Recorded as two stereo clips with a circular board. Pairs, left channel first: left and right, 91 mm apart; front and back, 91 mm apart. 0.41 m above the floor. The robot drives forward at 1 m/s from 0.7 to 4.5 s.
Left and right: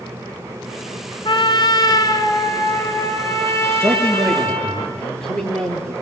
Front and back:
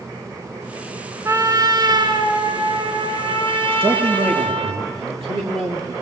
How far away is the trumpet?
About 1.9 m.